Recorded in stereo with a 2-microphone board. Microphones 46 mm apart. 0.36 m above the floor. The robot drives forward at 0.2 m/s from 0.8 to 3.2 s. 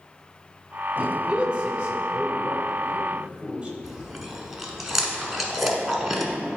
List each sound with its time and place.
1.0 s a man speaking: 25° right (ahead or behind), 1.6 m; by 3.7 s 20° right (ahead or behind), 1.8 m
3.8 s chewing: 5° right (ahead or behind), 1.0 m